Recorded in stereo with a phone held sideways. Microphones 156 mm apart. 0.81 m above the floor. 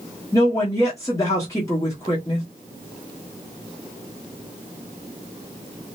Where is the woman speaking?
20° left (ahead or behind), 1.0 m.